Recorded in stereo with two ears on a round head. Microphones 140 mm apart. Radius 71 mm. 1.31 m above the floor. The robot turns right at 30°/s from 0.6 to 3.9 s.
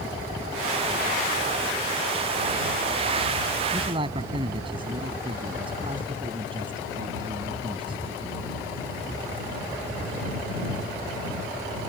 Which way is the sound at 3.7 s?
30° right (ahead or behind).